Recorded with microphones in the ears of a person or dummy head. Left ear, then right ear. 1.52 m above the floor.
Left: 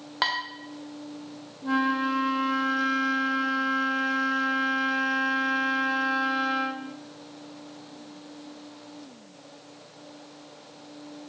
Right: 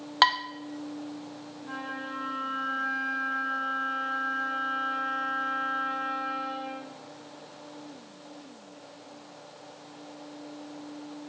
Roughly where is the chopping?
I don't hear chopping.